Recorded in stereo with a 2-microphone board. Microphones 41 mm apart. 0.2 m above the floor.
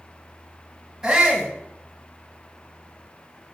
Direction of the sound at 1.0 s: 15° right (ahead or behind).